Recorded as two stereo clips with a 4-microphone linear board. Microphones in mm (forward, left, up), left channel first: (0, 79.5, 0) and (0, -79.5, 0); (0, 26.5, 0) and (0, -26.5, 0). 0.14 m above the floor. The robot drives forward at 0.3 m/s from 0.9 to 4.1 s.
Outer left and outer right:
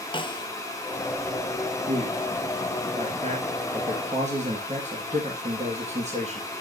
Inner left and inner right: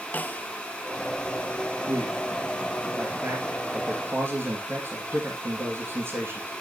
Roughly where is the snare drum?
Left.